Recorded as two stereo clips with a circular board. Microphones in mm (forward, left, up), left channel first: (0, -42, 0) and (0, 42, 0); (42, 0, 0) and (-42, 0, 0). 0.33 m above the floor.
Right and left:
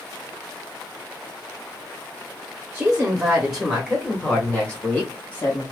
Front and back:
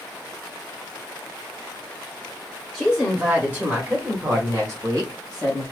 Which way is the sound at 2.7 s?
95° left.